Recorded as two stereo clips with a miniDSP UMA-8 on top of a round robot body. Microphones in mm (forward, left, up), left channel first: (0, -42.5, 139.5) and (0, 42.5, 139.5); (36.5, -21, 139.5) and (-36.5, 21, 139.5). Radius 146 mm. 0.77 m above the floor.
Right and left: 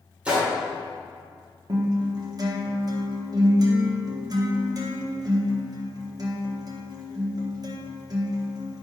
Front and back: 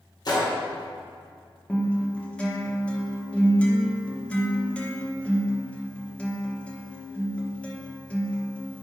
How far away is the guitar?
About 1.2 m.